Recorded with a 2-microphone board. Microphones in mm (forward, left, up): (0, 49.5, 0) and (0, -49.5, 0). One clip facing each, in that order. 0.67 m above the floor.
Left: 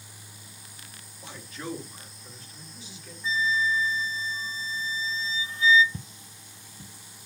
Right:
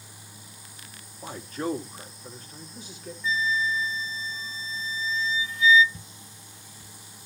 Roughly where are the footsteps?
Left.